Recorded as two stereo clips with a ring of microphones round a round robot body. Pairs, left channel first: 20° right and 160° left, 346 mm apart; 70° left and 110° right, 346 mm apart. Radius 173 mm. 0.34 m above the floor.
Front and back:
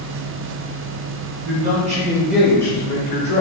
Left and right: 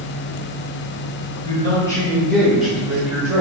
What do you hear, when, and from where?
1.4 s a man speaking: 130° left, 1.2 m; by 3.4 s 45° right, 1.2 m